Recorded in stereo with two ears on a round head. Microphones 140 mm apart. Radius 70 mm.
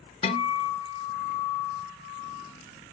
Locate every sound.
0.2 s a guitar: 35° left (ahead or behind), 0.8 m